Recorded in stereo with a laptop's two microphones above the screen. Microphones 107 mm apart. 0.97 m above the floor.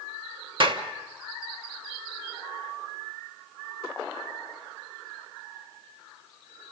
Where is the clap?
50° right (ahead or behind), 1.1 m.